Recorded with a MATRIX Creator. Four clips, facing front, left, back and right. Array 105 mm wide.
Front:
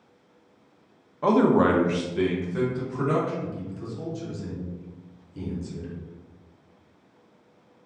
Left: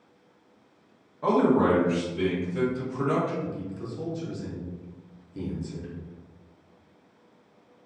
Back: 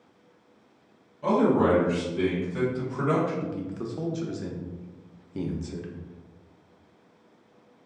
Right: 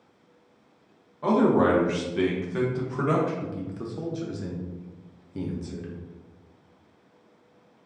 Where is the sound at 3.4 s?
150° right, 0.6 m.